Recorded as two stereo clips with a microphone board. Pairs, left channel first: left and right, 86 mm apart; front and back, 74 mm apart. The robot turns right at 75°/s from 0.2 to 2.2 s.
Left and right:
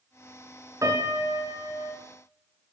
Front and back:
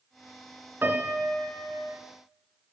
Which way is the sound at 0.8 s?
130° right.